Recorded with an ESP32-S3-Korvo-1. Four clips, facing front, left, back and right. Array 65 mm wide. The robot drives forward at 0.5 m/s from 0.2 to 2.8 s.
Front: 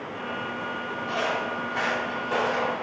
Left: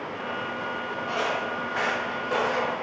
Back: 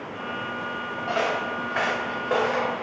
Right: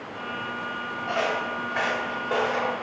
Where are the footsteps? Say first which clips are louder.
Right 2 dB, back 3 dB; 170° right, 2 m; by 2.7 s 165° left, 3.5 m.